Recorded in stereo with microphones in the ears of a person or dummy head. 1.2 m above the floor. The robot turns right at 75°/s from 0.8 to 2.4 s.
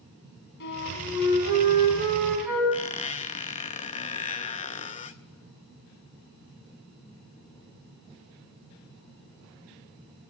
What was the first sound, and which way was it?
A flute, 60° left.